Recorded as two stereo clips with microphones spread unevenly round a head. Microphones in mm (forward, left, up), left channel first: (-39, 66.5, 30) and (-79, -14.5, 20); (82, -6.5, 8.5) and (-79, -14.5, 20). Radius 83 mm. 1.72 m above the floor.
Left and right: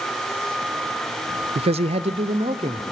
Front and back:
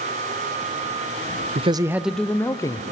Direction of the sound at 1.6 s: 125° right.